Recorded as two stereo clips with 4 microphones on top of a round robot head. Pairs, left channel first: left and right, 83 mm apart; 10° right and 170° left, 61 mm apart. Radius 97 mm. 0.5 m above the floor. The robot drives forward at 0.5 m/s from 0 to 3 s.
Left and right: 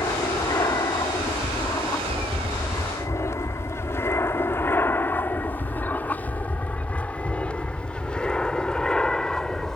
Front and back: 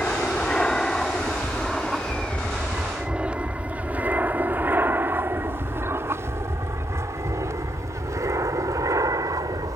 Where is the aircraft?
55° left; by 9.8 s 175° left.